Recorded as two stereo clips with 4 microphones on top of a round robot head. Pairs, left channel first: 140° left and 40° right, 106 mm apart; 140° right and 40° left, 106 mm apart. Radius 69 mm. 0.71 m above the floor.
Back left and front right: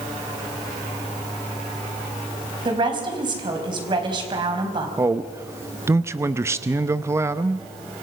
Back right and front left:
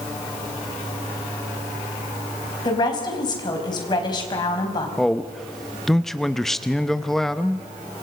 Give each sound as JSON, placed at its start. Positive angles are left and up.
{"t": 2.6, "sound": "a woman speaking", "azimuth_deg": -90, "distance_m": 4.5}
{"t": 5.0, "sound": "a man speaking", "azimuth_deg": -55, "distance_m": 0.8}